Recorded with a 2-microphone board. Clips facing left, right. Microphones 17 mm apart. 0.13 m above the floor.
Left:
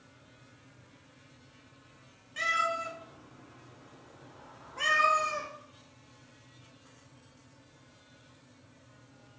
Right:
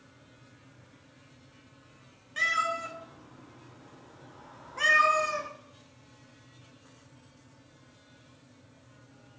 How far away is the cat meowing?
About 0.8 m.